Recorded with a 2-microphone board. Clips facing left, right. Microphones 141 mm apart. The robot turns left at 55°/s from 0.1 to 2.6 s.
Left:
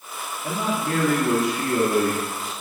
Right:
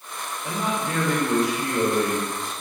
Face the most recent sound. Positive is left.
turn(degrees=15)